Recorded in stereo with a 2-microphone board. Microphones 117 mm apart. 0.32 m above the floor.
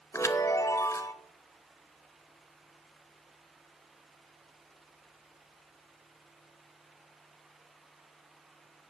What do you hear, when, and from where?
0.1 s a chime: 25° left (ahead or behind), 0.7 m